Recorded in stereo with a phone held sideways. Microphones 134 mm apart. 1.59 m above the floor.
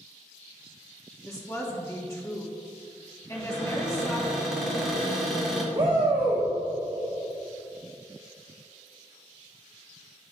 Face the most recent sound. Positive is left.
turn(degrees=-35)  # may be behind; listen again after turning